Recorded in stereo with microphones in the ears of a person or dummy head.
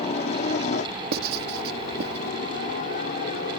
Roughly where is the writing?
Right.